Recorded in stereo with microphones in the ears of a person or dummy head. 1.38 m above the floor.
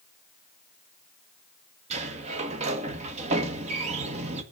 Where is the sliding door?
35° right (ahead or behind), 1.5 m.